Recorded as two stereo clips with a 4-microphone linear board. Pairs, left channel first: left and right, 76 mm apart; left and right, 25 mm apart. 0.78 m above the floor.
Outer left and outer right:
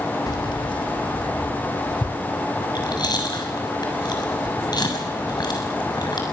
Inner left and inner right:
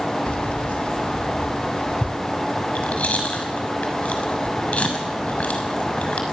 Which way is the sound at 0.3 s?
50° left (ahead or behind).